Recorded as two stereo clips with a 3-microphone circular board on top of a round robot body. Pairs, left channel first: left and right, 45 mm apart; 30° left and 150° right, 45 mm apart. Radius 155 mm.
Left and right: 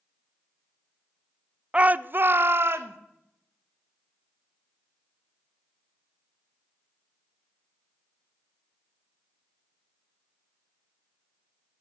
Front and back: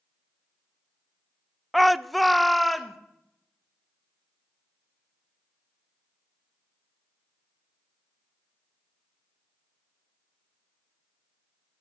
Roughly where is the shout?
Ahead right.